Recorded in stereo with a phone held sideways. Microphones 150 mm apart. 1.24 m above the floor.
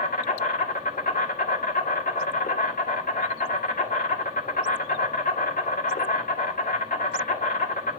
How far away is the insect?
About 2 m.